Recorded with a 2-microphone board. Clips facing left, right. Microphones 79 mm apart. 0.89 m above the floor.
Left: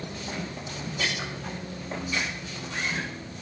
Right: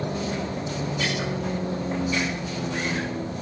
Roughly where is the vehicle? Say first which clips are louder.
Right 7 dB; right.